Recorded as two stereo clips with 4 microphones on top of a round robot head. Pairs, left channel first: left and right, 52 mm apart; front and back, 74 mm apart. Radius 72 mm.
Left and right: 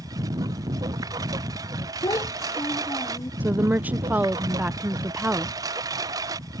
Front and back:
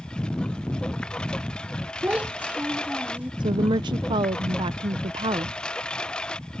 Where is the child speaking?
105° left.